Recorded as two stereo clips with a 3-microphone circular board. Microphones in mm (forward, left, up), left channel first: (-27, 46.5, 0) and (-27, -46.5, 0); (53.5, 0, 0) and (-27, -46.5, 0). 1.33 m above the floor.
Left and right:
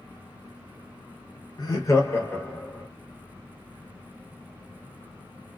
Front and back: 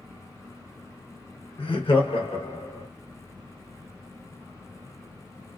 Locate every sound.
1.6 s laughter: 45° left, 0.9 m; by 2.9 s 15° left, 1.5 m